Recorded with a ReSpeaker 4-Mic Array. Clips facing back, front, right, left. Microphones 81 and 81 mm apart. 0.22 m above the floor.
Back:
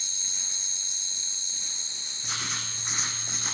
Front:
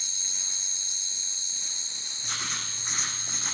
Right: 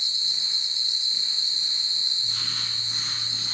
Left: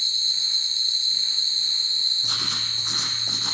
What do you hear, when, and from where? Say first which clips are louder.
0.0 s an insect: even, left 2 dB; 90° right, 0.9 m
2.2 s writing: even, left 7 dB; 90° left, 3.5 m